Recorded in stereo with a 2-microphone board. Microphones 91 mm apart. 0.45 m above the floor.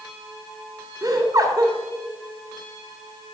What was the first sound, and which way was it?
Laughter, 40° right (ahead or behind).